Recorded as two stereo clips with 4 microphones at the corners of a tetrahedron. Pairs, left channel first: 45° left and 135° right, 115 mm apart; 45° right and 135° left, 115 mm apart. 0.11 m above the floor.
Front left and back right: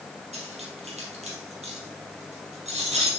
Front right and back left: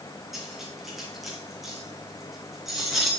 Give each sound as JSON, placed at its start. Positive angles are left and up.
{"t": 0.3, "sound": "cutlery clinking", "azimuth_deg": -135, "distance_m": 2.5}